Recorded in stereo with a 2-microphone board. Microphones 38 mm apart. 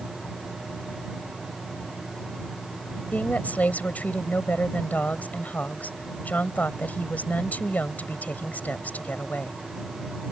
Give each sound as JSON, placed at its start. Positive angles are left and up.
{"t": 3.1, "sound": "a woman speaking", "side_deg": 45}